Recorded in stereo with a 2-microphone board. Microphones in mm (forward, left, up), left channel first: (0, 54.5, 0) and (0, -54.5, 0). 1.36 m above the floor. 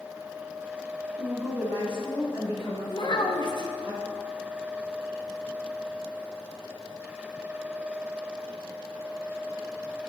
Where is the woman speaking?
40° right (ahead or behind), 2.5 m; by 3.9 s 20° right (ahead or behind), 6 m.